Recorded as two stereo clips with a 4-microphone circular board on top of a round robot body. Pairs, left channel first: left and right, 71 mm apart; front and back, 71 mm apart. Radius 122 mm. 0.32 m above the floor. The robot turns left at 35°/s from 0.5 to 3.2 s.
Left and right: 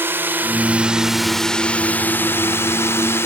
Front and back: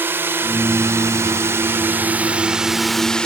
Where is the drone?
135° right; by 3.3 s 70° left.